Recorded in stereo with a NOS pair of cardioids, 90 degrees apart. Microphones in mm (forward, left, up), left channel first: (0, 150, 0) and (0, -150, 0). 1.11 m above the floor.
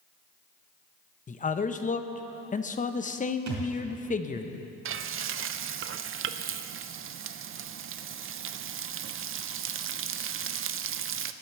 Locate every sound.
1.3 s a man speaking: 25° left, 0.8 m
3.5 s a thud: 65° right, 3.5 m
4.8 s frying: 45° right, 0.5 m